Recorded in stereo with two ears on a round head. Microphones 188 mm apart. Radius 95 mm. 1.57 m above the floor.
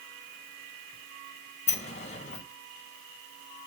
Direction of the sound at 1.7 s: 30° left (ahead or behind).